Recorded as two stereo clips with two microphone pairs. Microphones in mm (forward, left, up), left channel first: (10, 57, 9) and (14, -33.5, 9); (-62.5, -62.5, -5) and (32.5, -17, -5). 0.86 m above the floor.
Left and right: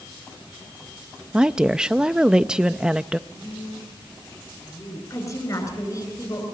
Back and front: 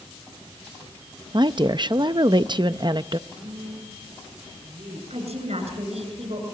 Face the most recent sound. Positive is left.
turn(degrees=40)